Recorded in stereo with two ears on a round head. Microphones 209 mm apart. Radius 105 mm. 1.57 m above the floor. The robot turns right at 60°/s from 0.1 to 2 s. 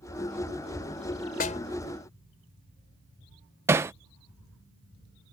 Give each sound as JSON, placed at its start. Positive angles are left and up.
{"t": 1.4, "sound": "a snare drum", "side_deg": 40}
{"t": 3.7, "sound": "hammering", "side_deg": -10}